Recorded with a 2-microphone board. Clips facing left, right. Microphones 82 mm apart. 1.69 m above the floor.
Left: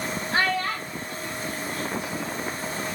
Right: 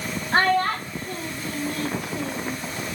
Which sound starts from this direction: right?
A child speaking, at 0.3 s.